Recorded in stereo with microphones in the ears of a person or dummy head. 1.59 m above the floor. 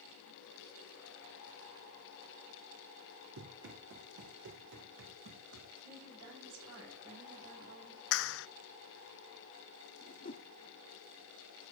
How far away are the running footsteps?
About 4.5 m.